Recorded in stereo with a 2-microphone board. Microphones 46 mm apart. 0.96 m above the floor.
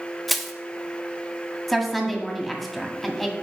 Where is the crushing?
Centre (ahead or behind), 0.8 m.